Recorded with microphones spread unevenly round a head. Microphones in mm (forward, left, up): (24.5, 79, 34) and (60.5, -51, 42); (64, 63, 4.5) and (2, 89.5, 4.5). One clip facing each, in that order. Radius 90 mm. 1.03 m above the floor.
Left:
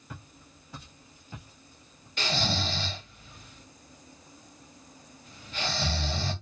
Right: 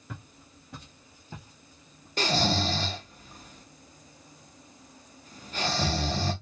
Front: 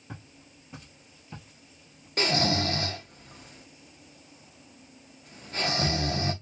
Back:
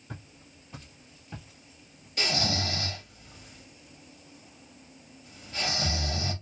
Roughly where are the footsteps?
Right.